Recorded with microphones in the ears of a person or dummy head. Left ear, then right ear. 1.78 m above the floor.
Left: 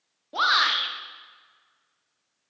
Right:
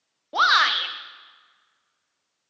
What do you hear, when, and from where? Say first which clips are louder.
0.3 s a shout: right 3 dB; 25° right (ahead or behind), 0.7 m